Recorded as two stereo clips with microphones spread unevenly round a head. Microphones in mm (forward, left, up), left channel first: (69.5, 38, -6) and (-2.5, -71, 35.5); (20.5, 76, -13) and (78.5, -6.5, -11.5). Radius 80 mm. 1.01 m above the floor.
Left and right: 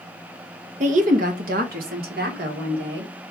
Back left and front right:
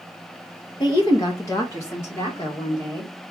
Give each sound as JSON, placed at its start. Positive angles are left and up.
{"t": 0.8, "sound": "a woman speaking", "azimuth_deg": -175, "distance_m": 0.8}